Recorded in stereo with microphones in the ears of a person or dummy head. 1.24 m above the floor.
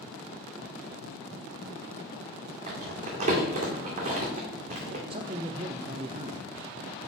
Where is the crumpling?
40° right (ahead or behind), 1.9 m.